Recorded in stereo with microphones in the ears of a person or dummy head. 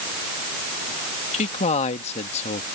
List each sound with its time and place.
1.3 s a man speaking: 30° left (ahead or behind)